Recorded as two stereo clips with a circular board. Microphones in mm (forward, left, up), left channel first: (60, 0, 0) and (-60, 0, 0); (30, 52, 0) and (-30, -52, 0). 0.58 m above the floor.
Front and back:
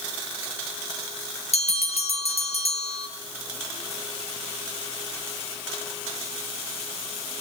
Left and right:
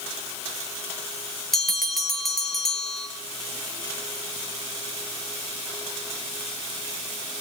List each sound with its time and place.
1.5 s a bell: 30° right, 4 m